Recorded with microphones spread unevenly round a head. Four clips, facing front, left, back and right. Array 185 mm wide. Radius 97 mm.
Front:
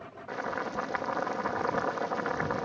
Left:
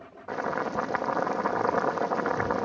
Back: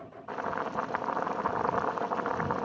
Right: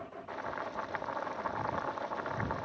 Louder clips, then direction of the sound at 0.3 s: Left 10 dB, back 1 dB; 95° left.